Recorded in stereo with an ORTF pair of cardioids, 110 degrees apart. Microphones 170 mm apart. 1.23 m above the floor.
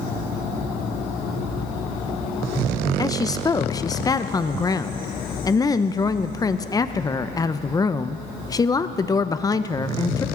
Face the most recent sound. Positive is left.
turn(degrees=20)